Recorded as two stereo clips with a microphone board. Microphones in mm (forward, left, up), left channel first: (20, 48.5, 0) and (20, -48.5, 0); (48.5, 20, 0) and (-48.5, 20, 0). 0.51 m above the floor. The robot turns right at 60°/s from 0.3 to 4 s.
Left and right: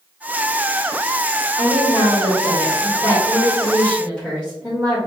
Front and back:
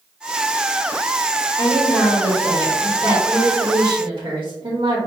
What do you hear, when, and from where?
1.6 s a woman speaking: 40° left, 1.2 m; by 5.0 s 175° right, 1.2 m